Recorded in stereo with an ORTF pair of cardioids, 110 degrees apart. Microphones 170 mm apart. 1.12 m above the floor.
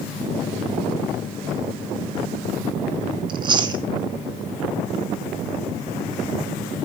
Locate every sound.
3.3 s chewing: 30° right, 3 m